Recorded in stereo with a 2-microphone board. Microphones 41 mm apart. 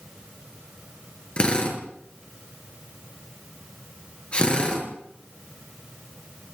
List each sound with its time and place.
1.4 s a drill: 25° left (ahead or behind), 6.5 m